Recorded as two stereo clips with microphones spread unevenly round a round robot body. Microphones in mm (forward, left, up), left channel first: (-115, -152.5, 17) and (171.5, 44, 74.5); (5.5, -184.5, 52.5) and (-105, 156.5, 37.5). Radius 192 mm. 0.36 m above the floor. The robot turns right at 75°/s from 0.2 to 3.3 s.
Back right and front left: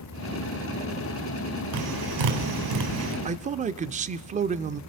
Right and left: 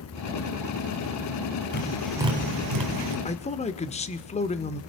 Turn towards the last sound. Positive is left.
turn(degrees=-25)